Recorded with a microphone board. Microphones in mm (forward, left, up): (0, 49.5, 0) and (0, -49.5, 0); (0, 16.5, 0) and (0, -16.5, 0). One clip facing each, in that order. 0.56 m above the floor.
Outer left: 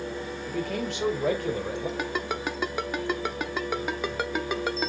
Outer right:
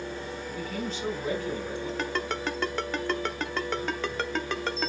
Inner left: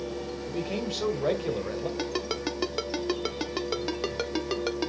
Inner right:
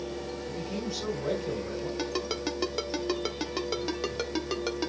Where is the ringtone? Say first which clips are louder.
Outer left 1 dB, inner left 1 dB; 10° left (ahead or behind), 0.8 m.